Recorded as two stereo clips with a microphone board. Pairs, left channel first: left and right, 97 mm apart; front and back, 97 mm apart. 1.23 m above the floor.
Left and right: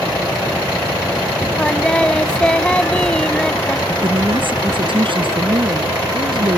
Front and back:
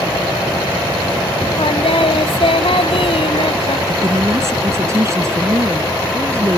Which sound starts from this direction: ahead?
Singing, at 1.6 s.